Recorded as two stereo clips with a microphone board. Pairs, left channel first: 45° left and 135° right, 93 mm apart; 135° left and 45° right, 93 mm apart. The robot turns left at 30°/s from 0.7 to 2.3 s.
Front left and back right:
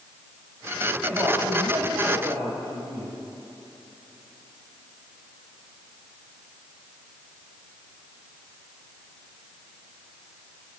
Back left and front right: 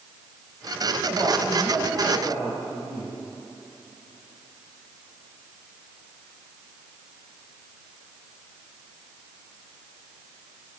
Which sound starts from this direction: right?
A woman speaking, at 1.0 s.